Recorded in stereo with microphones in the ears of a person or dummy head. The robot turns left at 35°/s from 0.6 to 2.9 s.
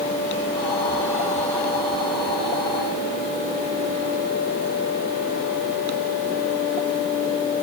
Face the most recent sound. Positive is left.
No sound to turn to.